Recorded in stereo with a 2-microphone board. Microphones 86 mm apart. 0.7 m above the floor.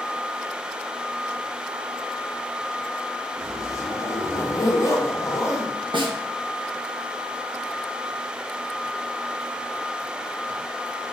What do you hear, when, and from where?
3.4 s a zipper: 35° left (ahead or behind), 0.5 m
5.9 s a snare drum: 60° right (ahead or behind), 0.6 m